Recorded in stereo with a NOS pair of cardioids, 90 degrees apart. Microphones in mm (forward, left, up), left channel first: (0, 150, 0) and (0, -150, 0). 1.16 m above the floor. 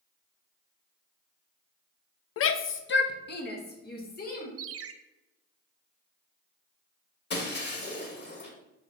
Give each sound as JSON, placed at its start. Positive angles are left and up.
{"t": 2.4, "sound": "a shout", "azimuth_deg": 50, "distance_m": 0.5}
{"t": 4.6, "sound": "a ringtone", "azimuth_deg": -50, "distance_m": 0.7}
{"t": 7.3, "sound": "breaking glass", "azimuth_deg": 35, "distance_m": 2.5}